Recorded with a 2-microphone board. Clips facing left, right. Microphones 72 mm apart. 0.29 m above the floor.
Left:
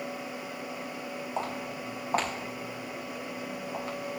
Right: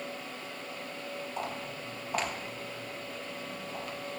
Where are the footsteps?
40° left (ahead or behind), 6 m.